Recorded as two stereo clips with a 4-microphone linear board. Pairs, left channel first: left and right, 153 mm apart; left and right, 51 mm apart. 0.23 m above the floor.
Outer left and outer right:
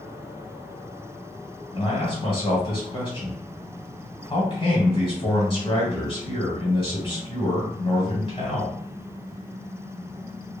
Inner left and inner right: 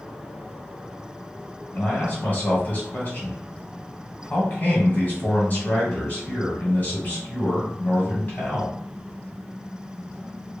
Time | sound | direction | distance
1.7 | a man speaking | 35° left (ahead or behind) | 1.5 m